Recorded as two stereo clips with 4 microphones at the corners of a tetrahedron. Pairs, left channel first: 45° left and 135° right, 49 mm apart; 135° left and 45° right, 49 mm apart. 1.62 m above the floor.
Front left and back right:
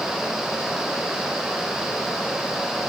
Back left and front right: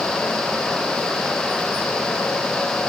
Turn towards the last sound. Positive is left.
No sound to turn to.